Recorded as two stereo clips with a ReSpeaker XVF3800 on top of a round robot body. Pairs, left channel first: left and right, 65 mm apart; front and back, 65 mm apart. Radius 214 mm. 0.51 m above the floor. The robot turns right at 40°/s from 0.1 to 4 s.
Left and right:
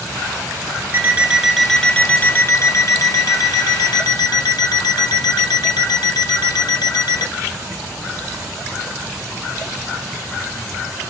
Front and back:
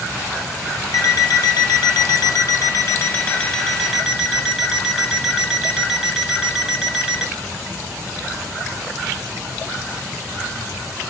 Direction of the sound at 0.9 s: 30° right.